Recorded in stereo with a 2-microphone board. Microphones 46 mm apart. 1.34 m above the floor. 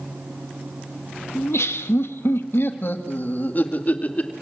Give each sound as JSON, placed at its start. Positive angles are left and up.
{"t": 1.4, "sound": "laughter", "side_deg": 85, "distance_m": 1.6}